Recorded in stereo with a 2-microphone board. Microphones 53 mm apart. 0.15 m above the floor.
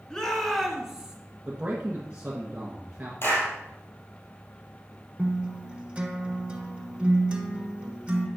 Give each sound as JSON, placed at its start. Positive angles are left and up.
{"t": 0.1, "sound": "a shout", "side_deg": 10, "distance_m": 2.5}
{"t": 1.4, "sound": "a man speaking", "side_deg": -25, "distance_m": 1.6}
{"t": 3.2, "sound": "a clap", "side_deg": 50, "distance_m": 4.0}
{"t": 5.2, "sound": "a guitar", "side_deg": -25, "distance_m": 1.3}